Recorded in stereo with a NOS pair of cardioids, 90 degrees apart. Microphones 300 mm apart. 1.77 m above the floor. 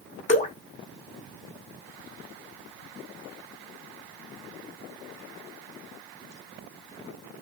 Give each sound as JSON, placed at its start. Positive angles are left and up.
{"t": 0.3, "sound": "dripping", "azimuth_deg": 25, "distance_m": 0.8}